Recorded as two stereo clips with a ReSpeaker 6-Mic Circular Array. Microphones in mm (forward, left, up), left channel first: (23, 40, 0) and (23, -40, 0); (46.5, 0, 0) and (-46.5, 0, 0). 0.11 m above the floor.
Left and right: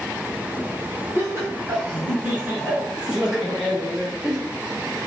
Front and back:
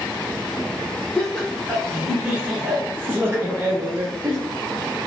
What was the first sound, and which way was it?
Laughter, 80° right.